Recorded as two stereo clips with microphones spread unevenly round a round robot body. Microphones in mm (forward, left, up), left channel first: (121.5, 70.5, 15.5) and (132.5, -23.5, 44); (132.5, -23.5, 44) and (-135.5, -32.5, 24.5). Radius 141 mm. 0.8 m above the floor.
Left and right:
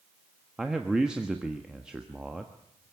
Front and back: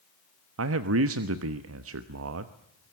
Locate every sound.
0.6 s a man speaking: straight behind, 1.2 m